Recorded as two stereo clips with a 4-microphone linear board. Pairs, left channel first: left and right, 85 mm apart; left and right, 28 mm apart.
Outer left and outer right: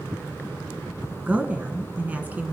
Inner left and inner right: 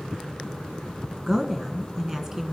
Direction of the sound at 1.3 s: 20° right (ahead or behind).